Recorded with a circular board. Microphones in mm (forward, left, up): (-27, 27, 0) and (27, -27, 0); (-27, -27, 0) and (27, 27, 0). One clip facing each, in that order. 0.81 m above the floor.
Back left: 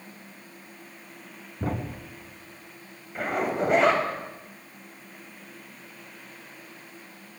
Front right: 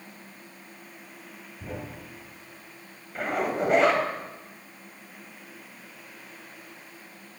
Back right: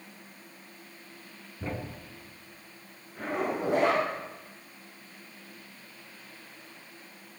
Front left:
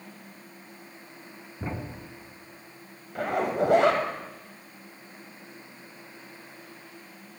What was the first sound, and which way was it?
A thud, 115° left.